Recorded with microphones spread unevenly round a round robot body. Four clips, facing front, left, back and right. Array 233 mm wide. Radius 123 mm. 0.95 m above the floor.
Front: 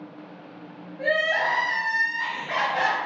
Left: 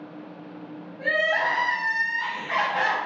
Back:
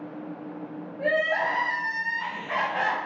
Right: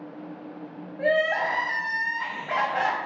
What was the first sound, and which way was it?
Crying, 65° right.